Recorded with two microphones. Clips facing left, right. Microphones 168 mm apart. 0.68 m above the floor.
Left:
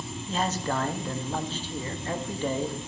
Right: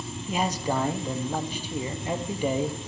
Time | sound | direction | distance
0.3 | a man speaking | 10° right (ahead or behind) | 0.6 m